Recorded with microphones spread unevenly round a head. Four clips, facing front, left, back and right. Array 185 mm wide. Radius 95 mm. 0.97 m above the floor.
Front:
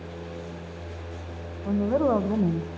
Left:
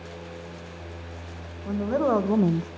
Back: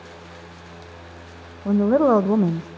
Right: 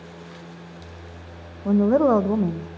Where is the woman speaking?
145° right, 1.1 m; by 2.7 s 70° left, 0.6 m.